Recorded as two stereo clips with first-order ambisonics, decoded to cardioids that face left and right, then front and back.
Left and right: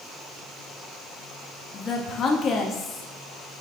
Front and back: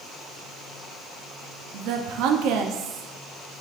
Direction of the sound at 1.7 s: 150° left.